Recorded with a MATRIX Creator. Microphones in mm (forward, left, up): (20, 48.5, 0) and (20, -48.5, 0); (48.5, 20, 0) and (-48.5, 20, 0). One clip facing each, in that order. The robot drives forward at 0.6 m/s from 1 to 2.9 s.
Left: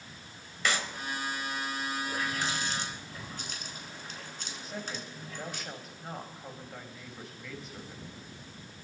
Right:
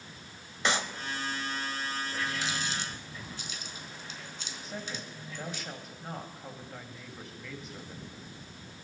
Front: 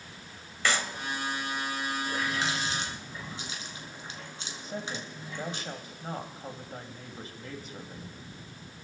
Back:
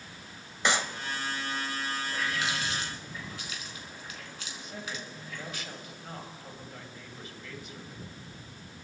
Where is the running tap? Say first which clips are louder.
Left 1 dB, front 1 dB; 50° left, 2.5 m; by 5.6 s 60° left, 2 m.